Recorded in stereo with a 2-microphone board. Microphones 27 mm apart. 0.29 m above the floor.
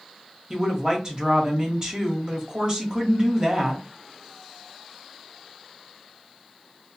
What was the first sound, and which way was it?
A woman speaking, 30° right (ahead or behind).